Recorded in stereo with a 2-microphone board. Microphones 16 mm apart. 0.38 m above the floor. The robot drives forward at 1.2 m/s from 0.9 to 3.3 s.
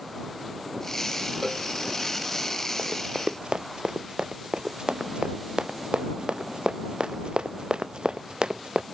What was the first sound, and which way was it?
A cowbell, 5° right (ahead or behind).